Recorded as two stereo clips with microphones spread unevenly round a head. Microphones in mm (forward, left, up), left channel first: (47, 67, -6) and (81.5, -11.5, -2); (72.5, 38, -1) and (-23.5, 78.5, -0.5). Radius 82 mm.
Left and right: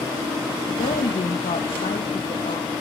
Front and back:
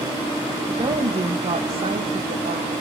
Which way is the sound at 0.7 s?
110° left.